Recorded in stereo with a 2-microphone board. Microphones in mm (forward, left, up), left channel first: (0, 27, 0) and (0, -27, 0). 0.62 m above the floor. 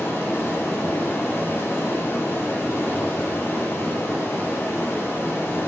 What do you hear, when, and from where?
0.0 s running water: 50° left (ahead or behind), 5.5 m